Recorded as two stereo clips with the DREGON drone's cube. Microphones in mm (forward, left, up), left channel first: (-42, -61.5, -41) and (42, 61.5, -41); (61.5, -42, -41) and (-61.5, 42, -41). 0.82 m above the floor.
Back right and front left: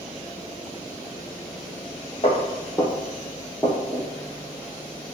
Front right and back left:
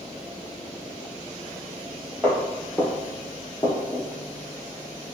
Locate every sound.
2.2 s footsteps: 105° right, 1.0 m; by 4.1 s 5° left, 1.0 m